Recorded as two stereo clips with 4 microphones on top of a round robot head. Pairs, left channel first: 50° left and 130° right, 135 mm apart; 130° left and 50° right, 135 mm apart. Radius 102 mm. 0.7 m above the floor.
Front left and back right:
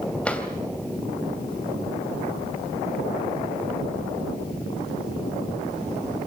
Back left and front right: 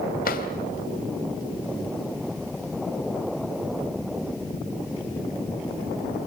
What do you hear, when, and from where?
0.2 s a drawer: 135° left, 3 m